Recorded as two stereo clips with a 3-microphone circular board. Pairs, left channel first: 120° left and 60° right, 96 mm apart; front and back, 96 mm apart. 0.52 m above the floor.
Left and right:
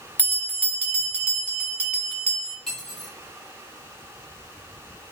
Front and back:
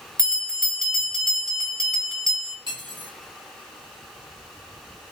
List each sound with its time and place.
0.2 s a bell: 175° left, 0.9 m
2.7 s cutlery clinking: 150° right, 1.6 m